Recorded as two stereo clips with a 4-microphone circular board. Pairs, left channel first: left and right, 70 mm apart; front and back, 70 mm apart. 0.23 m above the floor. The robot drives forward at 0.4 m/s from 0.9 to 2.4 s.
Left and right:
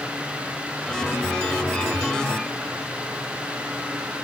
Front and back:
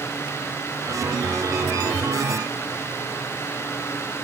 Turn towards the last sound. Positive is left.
No sound to turn to.